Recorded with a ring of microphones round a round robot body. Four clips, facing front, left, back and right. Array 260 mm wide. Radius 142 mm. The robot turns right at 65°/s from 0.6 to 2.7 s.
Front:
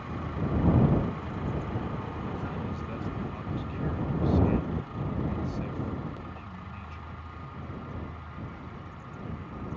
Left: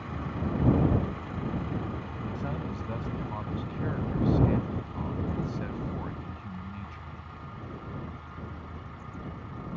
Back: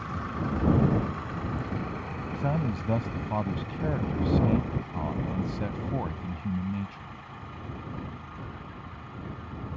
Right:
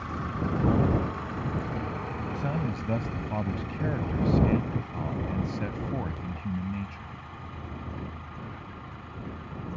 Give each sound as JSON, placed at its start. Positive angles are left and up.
{"t": 2.4, "sound": "a man speaking", "azimuth_deg": -170}